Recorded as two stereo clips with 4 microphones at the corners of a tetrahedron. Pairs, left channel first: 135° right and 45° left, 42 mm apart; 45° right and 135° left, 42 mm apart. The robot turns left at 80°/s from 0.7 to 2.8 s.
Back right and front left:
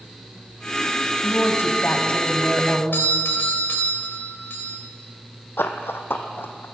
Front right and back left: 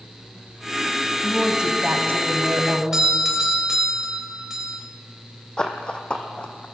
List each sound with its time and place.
1.2 s a woman speaking: 125° right, 2.5 m; by 2.8 s 110° left, 2.5 m
2.9 s a doorbell: 150° right, 3 m
5.6 s running footsteps: 110° right, 1.2 m; by 6.7 s 105° right, 1.9 m